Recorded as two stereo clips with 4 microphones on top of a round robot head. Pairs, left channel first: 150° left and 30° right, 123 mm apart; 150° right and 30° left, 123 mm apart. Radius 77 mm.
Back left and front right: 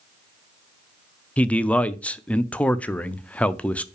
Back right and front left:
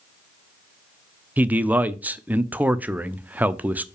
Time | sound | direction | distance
1.4 | a man speaking | 85° left | 0.7 m